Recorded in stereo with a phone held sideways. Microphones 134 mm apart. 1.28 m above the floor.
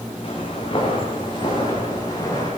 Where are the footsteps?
45° left (ahead or behind), 7.5 m; by 2.5 s 25° left (ahead or behind), 8.5 m.